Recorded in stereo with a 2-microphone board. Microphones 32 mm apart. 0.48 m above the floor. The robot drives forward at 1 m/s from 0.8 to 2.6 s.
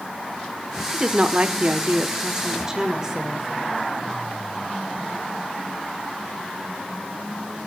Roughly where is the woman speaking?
Right.